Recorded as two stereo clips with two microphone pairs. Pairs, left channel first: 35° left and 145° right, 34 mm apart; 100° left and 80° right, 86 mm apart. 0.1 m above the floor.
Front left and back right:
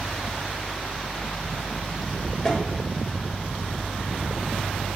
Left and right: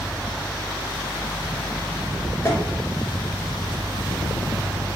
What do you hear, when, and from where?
2.5 s tapping: 90° left, 1.6 m